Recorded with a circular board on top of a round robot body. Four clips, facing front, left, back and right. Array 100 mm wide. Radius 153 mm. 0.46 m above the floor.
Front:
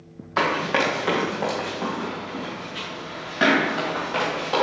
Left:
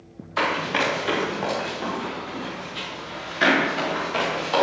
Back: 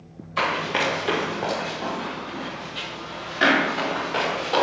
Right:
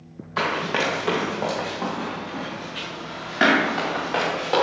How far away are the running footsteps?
About 1.2 m.